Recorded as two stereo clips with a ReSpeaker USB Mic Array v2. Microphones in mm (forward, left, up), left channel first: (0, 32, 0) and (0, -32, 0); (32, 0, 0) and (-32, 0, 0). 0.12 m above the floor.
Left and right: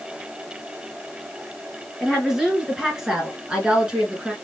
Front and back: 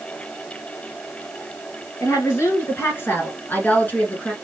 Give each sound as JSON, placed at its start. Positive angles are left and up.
{"t": 2.0, "sound": "a woman speaking", "azimuth_deg": -10, "distance_m": 2.5}